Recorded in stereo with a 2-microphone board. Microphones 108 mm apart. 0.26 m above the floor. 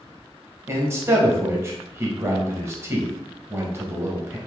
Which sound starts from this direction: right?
A man speaking, at 0.7 s.